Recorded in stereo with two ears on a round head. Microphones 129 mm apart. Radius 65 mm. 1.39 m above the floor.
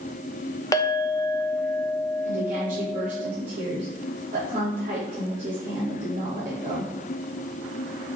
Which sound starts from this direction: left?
A clink, at 0.7 s.